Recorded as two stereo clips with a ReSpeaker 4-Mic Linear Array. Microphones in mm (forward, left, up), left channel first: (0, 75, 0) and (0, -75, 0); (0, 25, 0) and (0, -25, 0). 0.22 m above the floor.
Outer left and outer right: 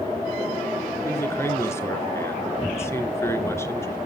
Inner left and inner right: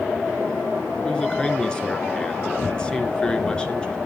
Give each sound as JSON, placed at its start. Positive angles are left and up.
{"t": 1.1, "sound": "a man speaking", "side_deg": 15, "distance_m": 3.0}